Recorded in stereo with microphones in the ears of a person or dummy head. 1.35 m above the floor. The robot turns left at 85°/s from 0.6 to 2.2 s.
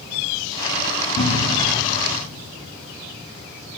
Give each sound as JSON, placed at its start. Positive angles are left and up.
{"t": 1.2, "sound": "a cupboard door", "side_deg": 45, "distance_m": 2.0}